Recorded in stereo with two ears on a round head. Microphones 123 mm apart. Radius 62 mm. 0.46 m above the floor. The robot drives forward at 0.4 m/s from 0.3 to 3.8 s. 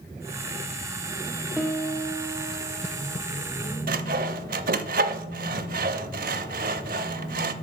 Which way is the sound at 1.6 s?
5° right (ahead or behind).